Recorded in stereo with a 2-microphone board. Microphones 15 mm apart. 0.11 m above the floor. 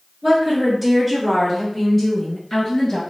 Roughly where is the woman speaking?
Centre.